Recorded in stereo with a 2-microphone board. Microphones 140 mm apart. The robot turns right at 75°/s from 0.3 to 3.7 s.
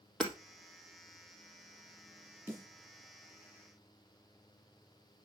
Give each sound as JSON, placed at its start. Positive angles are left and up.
{"t": 0.2, "sound": "hammering", "side_deg": 5, "distance_m": 3.0}
{"t": 2.5, "sound": "a snare drum", "side_deg": -15, "distance_m": 5.0}